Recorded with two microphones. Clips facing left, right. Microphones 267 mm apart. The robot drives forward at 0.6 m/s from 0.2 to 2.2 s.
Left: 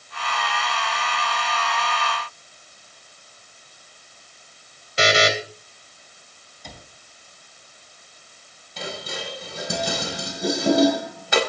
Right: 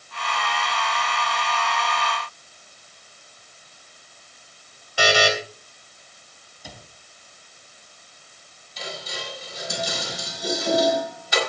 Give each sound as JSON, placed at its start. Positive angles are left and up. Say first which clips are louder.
{"t": 5.0, "sound": "a buzzer", "louder": "left 1 dB", "side_deg": 25, "distance_m": 3.0}
{"t": 6.6, "sound": "a cupboard door", "louder": "even", "side_deg": -10, "distance_m": 3.5}
{"t": 8.8, "sound": "dishes clattering", "louder": "left 3 dB", "side_deg": 65, "distance_m": 4.0}